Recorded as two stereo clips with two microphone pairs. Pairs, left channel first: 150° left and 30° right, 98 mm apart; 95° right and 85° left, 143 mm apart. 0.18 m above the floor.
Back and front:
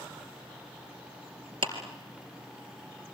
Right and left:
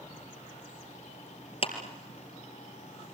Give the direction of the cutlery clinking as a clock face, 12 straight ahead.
No cutlery clinking in this recording.